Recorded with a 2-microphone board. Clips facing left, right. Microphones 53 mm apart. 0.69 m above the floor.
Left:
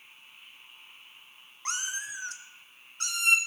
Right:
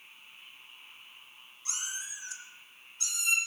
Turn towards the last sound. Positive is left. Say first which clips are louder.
# left 6 dB
turn(degrees=60)  # may be behind; listen again after turning